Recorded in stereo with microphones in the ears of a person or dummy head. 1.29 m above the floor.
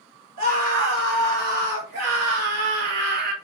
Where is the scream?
50° right (ahead or behind), 5 m.